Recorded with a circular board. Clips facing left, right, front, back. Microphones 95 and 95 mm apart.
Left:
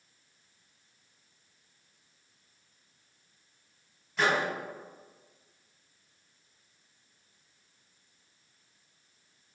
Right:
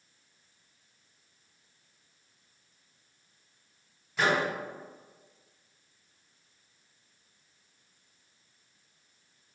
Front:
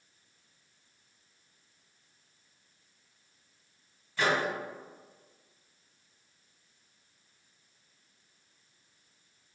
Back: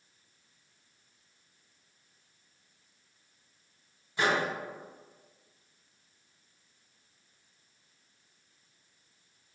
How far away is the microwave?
About 0.9 m.